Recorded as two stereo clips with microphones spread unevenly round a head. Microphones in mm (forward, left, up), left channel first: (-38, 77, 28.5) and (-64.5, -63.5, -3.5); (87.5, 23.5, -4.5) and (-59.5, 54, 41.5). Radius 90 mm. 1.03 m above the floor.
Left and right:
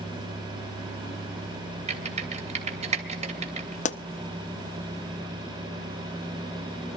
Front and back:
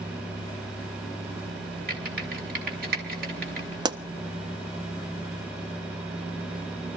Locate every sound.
1.9 s typing on a keyboard: 150° right, 2.5 m
3.9 s a pop: 110° left, 0.7 m